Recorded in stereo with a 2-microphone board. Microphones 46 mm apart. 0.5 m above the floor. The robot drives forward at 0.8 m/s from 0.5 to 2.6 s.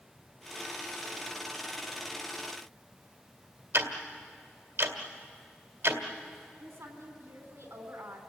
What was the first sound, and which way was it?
Ticking, 65° right (ahead or behind).